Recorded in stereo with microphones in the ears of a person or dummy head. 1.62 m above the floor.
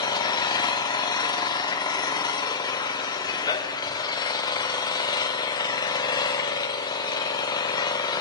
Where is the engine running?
20° left (ahead or behind), 0.7 m.